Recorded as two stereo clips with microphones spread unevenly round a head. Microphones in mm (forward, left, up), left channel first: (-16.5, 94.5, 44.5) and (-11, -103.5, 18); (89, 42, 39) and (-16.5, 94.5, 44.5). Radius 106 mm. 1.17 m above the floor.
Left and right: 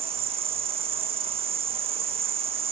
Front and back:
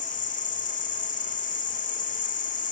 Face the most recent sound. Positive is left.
turn(degrees=-25)